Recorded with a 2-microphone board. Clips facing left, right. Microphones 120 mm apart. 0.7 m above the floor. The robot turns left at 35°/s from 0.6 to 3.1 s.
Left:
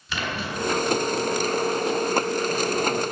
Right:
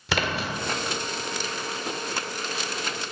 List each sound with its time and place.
0.1 s a splash: 75° right (ahead or behind), 1.7 m